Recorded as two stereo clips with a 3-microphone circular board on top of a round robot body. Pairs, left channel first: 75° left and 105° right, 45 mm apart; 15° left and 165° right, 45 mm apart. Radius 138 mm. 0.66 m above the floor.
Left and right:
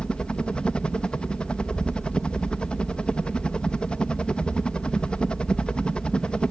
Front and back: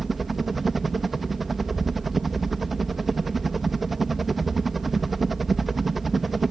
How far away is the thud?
I don't hear a thud.